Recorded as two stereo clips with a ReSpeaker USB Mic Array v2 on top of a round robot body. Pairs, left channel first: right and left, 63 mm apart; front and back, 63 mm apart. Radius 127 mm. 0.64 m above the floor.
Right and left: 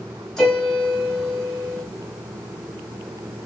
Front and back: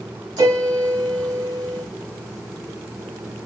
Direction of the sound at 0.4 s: 170° right.